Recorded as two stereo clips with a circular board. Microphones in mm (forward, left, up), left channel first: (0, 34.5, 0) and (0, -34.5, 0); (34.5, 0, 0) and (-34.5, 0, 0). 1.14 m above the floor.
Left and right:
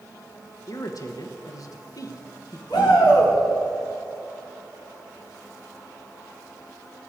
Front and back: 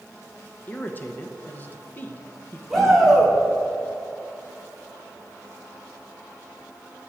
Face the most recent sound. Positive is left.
turn(degrees=90)